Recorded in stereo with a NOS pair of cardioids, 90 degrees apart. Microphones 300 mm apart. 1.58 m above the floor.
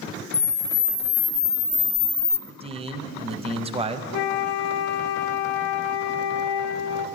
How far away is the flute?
About 0.6 m.